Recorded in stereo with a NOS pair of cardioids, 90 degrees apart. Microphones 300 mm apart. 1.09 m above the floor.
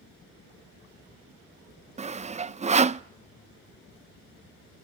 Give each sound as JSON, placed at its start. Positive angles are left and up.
{"t": 2.0, "sound": "sawing", "azimuth_deg": -25, "distance_m": 0.5}